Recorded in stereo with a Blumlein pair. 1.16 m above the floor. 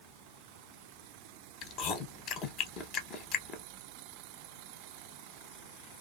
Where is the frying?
I don't hear frying.